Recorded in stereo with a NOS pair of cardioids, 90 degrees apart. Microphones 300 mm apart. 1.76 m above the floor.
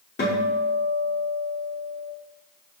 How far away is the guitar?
About 5.5 m.